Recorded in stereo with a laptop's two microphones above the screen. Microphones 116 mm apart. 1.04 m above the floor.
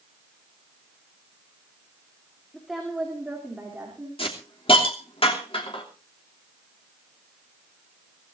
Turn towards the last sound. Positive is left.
turn(degrees=50)  # may be behind; listen again after turning